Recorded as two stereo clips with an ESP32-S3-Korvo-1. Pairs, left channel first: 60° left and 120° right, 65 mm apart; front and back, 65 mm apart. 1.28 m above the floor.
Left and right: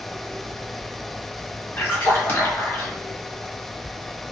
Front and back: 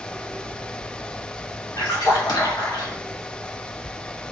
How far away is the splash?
About 1.2 m.